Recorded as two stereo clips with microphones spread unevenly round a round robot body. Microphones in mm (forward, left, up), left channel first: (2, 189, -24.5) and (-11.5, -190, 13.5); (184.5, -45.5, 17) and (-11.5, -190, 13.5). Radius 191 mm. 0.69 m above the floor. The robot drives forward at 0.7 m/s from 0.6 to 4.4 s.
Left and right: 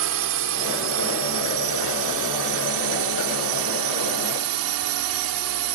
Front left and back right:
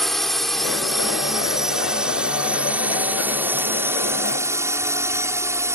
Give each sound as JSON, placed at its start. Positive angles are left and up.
{"t": 0.0, "sound": "a drone", "azimuth_deg": -50}